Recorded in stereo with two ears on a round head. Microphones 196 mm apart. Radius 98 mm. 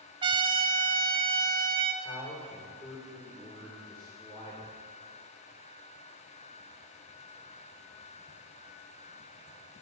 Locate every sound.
0.2 s a trumpet: 20° right (ahead or behind), 1.1 m
2.0 s a man speaking: 20° left (ahead or behind), 3 m